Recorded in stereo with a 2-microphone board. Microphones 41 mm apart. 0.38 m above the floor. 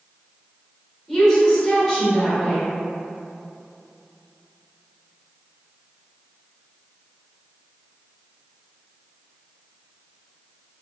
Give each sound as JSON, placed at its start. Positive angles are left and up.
{"t": 1.1, "sound": "a woman speaking", "side_deg": 15, "distance_m": 0.9}